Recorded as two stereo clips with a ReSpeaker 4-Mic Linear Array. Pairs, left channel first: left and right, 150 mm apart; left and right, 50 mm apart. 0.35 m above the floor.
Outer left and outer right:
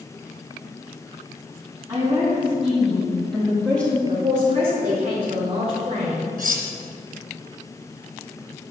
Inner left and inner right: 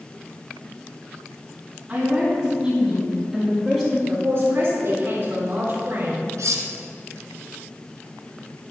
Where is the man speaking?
40° right (ahead or behind), 3.5 m.